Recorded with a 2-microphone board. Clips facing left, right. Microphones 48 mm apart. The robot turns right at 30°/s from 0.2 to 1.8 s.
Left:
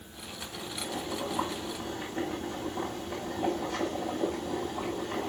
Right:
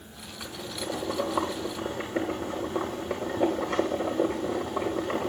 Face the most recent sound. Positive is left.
turn(degrees=-70)